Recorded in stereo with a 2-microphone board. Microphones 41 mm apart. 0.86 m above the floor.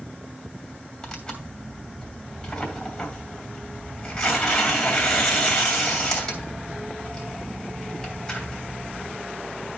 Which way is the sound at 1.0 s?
15° left (ahead or behind).